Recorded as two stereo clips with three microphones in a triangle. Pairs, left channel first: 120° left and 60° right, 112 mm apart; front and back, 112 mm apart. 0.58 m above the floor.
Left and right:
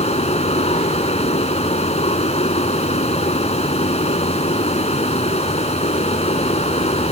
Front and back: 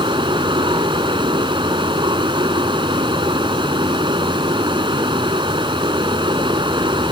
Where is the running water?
135° left.